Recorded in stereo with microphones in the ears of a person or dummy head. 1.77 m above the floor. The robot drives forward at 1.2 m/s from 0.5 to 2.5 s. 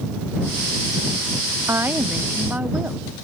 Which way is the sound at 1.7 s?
10° right (ahead or behind).